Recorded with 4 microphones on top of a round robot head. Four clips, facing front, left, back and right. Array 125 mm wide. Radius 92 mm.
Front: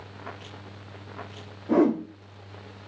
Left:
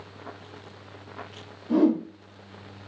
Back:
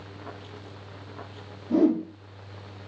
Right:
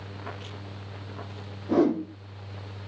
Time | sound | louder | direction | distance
1.7 | a whoosh | left 1 dB, even | 25° right | 3 m